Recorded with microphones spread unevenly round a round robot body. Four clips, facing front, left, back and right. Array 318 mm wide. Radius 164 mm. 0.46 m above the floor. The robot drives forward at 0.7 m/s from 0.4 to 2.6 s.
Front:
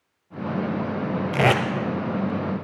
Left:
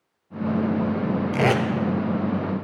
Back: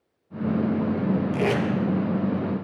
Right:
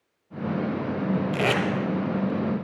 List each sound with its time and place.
1.3 s tape being pulled: 20° left, 0.9 m; by 1.6 s 25° left, 0.7 m